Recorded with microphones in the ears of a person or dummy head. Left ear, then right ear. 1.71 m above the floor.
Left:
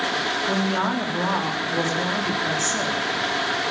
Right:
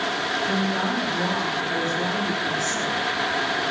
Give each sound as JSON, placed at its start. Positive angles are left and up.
{"t": 0.5, "sound": "a woman speaking", "side_deg": 35, "distance_m": 3.5}